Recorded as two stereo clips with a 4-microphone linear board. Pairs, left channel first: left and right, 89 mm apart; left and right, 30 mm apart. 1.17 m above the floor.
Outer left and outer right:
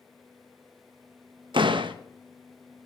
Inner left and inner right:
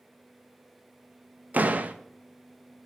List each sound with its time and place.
1.5 s a door slam: 65° right (ahead or behind), 1.0 m